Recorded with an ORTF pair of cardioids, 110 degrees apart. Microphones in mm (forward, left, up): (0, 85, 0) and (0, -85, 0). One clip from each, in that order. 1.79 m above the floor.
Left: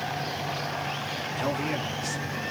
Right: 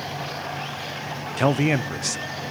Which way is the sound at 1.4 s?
50° right.